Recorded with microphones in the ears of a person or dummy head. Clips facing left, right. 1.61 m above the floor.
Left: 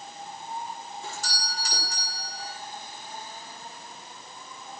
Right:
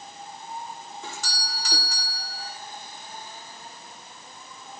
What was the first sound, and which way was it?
A doorbell, 70° right (ahead or behind).